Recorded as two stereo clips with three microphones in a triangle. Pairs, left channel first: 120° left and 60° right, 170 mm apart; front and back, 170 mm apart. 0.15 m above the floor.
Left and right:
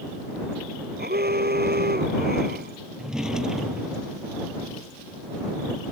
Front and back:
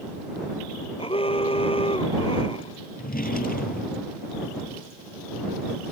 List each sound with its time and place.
1.0 s an alarm: 55° right
3.0 s a drawer: 25° left